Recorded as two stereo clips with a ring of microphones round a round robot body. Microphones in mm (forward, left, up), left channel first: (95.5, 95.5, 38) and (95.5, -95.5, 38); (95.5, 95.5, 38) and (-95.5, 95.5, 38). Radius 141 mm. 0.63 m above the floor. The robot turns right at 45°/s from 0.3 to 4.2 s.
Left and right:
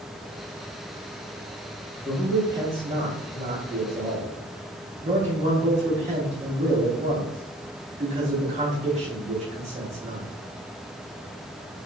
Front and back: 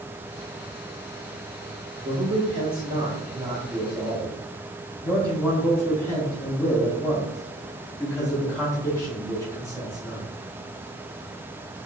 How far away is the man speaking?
About 0.7 m.